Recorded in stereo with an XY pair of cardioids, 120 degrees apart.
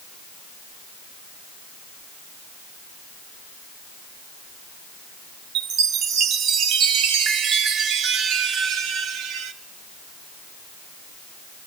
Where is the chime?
70° right, 1.1 m.